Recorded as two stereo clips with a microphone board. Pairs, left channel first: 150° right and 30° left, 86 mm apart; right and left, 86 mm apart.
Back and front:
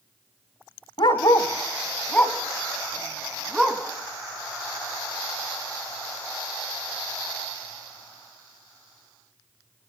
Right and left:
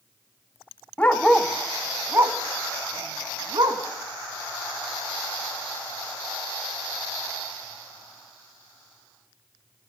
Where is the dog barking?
160° right, 1.1 m; by 3.8 s 115° left, 2.5 m.